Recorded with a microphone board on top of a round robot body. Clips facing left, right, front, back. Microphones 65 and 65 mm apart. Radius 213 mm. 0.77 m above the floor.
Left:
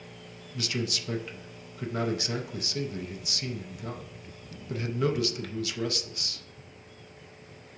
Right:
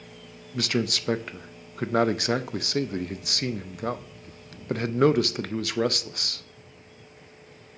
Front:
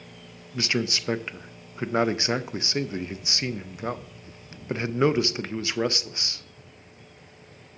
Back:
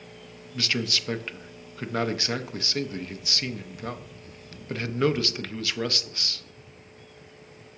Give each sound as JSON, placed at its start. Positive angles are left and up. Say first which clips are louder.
{"t": 0.5, "sound": "a man speaking", "louder": "right 6 dB, front 2 dB", "azimuth_deg": -65, "distance_m": 0.6}